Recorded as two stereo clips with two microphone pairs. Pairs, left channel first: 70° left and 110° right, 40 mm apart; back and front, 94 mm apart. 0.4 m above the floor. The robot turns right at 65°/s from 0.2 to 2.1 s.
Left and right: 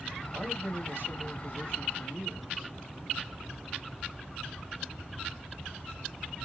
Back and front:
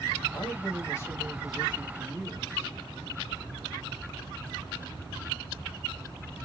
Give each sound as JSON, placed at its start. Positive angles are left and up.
{"t": 0.3, "sound": "a man speaking", "azimuth_deg": -165, "distance_m": 2.5}